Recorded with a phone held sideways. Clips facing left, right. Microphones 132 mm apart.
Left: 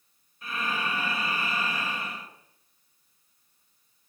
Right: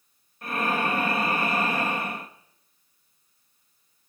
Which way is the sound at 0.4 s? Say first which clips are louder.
Right 6 dB; 55° right (ahead or behind).